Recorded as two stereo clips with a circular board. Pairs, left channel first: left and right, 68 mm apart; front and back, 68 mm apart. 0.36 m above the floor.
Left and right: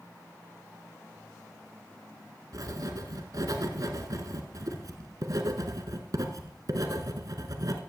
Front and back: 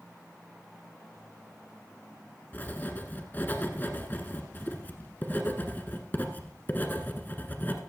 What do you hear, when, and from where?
2.5 s writing: 60° right, 1.2 m